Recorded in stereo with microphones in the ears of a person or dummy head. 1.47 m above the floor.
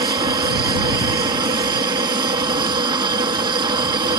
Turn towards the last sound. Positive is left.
turn(degrees=-25)  # may be behind; listen again after turning